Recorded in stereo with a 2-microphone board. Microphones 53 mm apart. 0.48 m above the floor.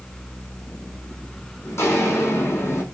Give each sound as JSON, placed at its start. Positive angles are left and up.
{"t": 1.6, "sound": "footsteps", "side_deg": 55, "distance_m": 1.4}